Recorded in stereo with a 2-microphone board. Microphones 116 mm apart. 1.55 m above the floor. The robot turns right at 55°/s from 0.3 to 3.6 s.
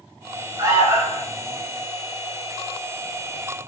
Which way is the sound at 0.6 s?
35° right.